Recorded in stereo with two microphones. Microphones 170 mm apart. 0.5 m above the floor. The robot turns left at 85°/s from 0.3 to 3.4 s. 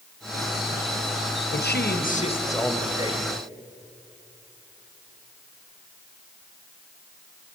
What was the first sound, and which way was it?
A man speaking, 105° left.